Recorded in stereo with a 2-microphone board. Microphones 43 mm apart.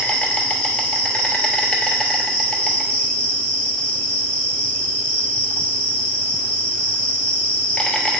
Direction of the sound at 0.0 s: 25° left (ahead or behind).